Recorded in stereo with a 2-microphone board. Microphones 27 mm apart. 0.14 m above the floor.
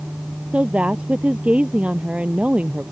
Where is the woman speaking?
60° right (ahead or behind).